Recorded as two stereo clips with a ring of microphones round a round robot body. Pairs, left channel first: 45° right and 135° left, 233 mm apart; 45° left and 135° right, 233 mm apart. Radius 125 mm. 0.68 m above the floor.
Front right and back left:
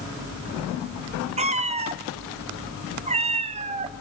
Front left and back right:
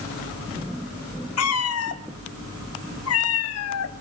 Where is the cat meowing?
70° left, 1.1 m.